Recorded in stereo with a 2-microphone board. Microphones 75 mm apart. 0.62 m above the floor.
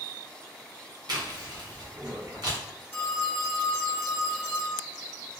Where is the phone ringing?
25° left (ahead or behind), 0.8 m.